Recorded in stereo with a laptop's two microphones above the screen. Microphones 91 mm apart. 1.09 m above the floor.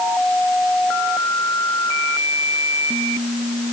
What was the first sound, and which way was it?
Only background noise.